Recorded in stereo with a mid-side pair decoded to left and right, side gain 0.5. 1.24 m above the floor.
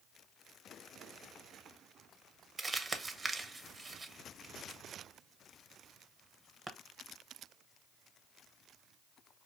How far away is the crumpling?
About 0.6 m.